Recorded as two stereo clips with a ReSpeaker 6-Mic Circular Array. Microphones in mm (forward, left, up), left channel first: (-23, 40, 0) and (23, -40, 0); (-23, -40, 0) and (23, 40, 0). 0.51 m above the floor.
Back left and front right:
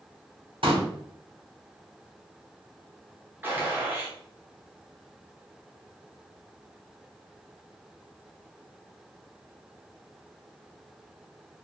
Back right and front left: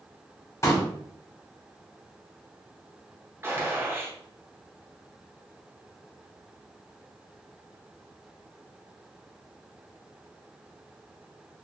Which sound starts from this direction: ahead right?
A pop, at 0.6 s.